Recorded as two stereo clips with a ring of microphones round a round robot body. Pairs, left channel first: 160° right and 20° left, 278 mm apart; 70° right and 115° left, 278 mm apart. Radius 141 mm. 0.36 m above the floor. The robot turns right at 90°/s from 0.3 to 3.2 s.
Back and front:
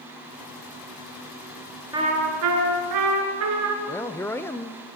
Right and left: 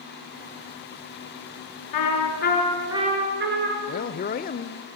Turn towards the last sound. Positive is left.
turn(degrees=-85)